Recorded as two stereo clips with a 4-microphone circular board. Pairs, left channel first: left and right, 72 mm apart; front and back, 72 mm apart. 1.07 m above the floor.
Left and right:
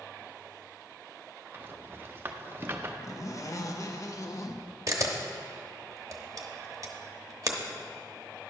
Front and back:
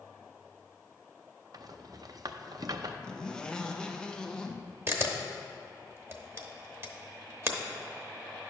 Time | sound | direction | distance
1.5 | a rattle | 150° right | 0.5 m
3.0 | a zipper | 75° left | 0.6 m
4.9 | a camera shutter | 130° right | 0.8 m